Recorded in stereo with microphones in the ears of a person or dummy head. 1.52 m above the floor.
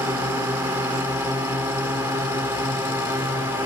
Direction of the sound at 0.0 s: 10° right (ahead or behind).